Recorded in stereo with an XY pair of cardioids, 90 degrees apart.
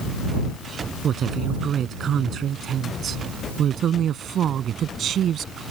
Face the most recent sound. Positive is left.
turn(degrees=-70)